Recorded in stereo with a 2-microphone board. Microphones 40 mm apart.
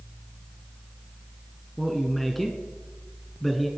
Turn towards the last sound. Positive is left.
turn(degrees=0)  # may be behind; listen again after turning